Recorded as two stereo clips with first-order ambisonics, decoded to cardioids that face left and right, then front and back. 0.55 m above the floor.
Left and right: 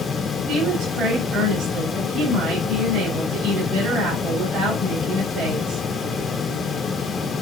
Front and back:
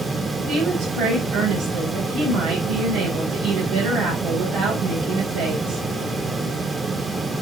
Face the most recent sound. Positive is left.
turn(degrees=-145)